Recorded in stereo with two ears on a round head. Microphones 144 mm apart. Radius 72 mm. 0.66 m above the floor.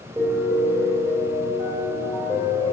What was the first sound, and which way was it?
A piano, 30° right (ahead or behind).